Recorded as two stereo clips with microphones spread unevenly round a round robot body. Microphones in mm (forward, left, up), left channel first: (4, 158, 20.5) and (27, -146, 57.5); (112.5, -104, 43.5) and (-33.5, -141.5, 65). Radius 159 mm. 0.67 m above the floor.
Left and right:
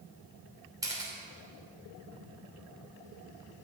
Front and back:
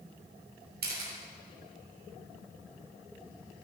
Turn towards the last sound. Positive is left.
turn(degrees=-165)